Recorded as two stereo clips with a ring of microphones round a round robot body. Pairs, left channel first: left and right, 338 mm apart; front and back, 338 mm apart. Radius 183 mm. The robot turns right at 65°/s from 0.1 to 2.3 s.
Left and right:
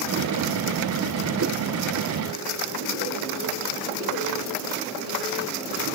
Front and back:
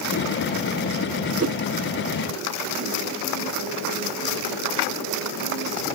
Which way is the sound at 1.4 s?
140° right.